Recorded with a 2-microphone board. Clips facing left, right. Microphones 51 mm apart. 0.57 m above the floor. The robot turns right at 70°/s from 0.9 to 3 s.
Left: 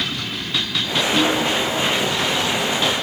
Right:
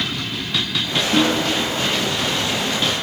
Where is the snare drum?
50° right (ahead or behind), 7 m; by 1.5 s 25° right (ahead or behind), 7 m.